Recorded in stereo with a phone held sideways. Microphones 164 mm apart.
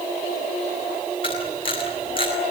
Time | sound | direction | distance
1.2 | a camera shutter | 30° left (ahead or behind) | 7.5 m